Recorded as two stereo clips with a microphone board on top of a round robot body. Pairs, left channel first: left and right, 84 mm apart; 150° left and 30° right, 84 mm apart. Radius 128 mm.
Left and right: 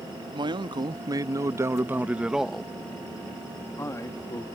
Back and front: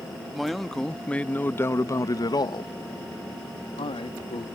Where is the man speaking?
115° right; by 4.5 s 140° left.